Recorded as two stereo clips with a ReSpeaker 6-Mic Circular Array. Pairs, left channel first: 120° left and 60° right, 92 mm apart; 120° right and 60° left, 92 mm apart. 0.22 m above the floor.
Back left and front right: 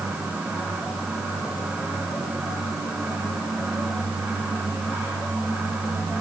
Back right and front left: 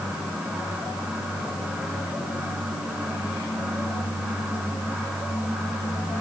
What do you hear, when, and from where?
Only background noise.